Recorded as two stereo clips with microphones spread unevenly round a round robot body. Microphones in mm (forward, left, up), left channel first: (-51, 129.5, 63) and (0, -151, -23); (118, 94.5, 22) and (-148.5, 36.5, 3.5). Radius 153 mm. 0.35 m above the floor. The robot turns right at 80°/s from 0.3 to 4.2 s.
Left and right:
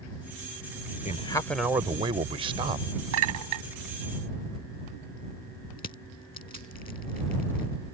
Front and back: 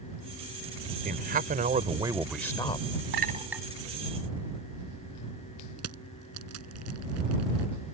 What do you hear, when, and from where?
1.1 s a man speaking: 175° left; by 2.9 s 40° right
3.1 s a clink: 115° right; by 3.6 s 75° right
5.8 s crushing: 165° left